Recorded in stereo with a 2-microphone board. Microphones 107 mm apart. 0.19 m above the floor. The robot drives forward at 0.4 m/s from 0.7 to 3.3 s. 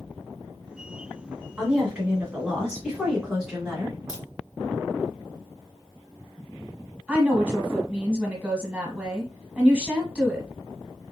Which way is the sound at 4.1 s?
30° left (ahead or behind).